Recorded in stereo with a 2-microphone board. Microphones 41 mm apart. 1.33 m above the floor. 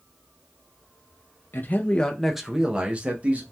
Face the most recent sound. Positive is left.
turn(degrees=-35)  # may be behind; listen again after turning